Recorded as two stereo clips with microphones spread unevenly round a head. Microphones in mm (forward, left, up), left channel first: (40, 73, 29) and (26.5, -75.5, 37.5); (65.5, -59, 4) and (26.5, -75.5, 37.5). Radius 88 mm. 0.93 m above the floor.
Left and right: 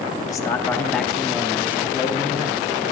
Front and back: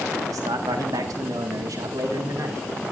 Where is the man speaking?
155° left, 1.2 m; by 2.9 s 160° right, 2.5 m.